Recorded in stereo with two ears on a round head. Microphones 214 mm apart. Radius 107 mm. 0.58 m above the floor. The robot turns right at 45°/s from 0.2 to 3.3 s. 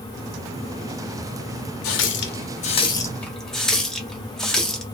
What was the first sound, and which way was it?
A running tap, 60° left (ahead or behind).